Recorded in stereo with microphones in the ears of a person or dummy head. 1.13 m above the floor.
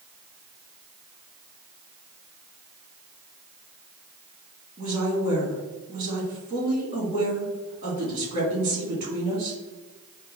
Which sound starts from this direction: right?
A woman speaking, at 4.8 s.